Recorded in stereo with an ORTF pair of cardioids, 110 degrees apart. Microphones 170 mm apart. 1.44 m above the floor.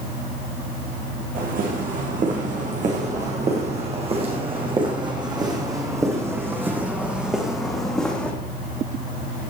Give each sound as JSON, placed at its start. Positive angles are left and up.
{"t": 1.4, "sound": "footsteps", "azimuth_deg": -55, "distance_m": 5.5}